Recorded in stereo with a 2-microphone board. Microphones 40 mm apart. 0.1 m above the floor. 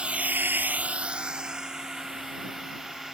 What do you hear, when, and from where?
0.0 s a drone: 25° right (ahead or behind); by 3.1 s 10° right (ahead or behind)